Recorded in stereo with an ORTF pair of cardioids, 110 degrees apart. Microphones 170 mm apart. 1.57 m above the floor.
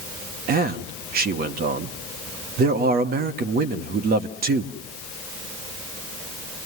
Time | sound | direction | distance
0.5 | a man speaking | 70° right | 1.1 m